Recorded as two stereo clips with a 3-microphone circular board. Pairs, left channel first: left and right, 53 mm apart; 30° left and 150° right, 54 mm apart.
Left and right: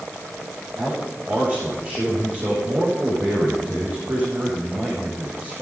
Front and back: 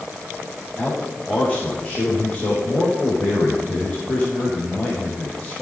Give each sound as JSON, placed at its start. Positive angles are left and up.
{"t": 0.8, "sound": "a man speaking", "azimuth_deg": -40, "distance_m": 5.0}